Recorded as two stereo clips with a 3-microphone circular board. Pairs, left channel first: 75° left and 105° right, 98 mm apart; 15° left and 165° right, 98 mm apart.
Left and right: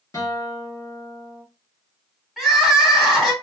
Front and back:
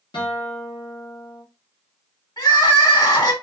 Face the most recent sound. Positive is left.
turn(degrees=-10)